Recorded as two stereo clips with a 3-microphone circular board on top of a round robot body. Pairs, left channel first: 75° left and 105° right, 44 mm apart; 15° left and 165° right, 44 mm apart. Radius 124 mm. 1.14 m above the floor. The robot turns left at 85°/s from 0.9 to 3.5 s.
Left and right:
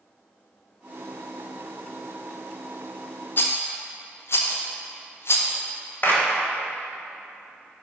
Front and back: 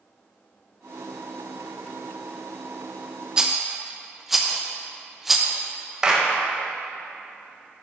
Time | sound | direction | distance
3.4 | a rattle | 120° left | 0.6 m
6.0 | a clap | 120° left | 1.3 m